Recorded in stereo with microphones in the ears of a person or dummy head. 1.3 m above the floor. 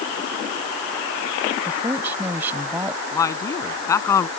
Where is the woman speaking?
5° right (ahead or behind).